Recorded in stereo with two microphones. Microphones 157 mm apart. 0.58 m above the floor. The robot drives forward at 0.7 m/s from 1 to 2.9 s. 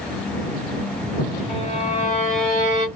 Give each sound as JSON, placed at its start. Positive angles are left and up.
{"t": 1.5, "sound": "a violin", "side_deg": 45, "distance_m": 2.5}